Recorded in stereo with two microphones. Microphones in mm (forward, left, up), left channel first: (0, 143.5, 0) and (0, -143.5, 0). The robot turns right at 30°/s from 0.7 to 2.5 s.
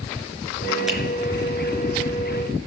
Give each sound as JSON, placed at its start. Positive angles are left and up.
{"t": 0.9, "sound": "a finger snap", "side_deg": 0, "distance_m": 5.0}